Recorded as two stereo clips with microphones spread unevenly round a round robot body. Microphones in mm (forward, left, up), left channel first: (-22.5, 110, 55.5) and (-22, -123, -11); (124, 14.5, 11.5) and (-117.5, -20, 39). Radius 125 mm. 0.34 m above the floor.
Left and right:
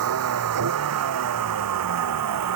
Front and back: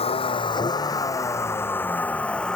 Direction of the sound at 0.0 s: 60° right.